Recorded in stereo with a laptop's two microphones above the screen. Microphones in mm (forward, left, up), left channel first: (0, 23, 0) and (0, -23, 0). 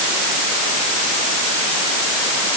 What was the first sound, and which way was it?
Only background noise.